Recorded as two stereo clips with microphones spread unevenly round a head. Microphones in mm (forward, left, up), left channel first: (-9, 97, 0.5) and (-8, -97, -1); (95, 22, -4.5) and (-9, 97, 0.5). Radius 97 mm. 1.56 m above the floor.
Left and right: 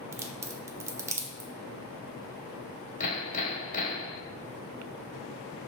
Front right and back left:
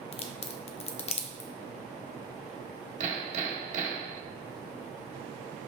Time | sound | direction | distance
0.1 | a crack | 15° right | 0.8 m
3.0 | hammering | 135° left | 1.6 m